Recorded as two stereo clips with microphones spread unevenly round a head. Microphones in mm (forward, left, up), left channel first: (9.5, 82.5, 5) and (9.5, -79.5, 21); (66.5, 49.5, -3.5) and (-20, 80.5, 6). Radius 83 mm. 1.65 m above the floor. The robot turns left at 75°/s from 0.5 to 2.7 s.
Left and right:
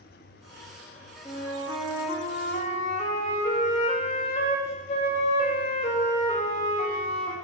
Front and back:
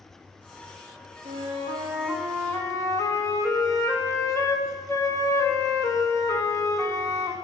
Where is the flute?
145° left, 1.7 m; by 7.3 s 40° left, 1.7 m.